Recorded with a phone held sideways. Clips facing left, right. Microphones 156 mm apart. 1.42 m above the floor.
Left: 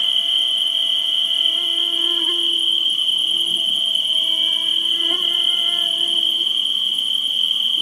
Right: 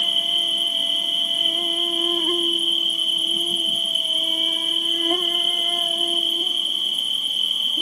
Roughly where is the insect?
Right.